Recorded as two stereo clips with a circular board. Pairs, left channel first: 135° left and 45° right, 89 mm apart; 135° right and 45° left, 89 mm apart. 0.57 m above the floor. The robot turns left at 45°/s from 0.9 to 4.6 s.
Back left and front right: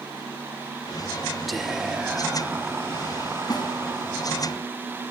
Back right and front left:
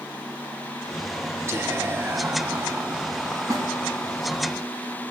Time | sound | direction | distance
1.5 | whispering | 45° left | 0.9 m
3.5 | a snare drum | 95° left | 6 m